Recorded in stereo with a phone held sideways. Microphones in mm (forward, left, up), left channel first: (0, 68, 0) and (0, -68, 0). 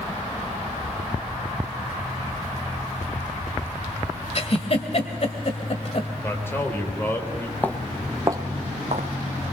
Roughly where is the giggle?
Left.